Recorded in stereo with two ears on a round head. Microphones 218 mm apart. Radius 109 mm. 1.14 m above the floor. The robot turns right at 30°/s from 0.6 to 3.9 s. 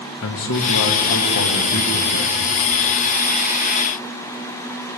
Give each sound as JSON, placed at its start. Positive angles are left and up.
{"t": 0.2, "sound": "a man speaking", "azimuth_deg": 70, "distance_m": 1.2}